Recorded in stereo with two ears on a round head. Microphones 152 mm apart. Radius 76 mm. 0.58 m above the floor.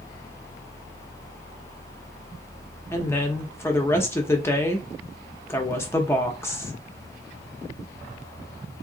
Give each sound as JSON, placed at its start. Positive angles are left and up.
{"t": 2.9, "sound": "a woman speaking", "side_deg": 15, "distance_m": 0.7}